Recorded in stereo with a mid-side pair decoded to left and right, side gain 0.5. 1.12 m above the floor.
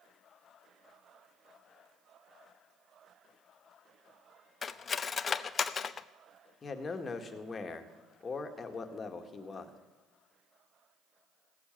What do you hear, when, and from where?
4.6 s cutlery clinking: 40° left, 0.7 m
6.6 s a man speaking: 35° left, 1.9 m